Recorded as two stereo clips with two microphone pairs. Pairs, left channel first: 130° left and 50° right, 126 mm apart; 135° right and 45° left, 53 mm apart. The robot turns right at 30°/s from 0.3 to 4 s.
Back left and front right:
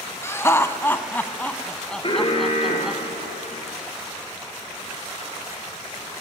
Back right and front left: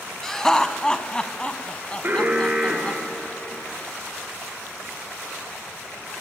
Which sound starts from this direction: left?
An alarm, at 2.0 s.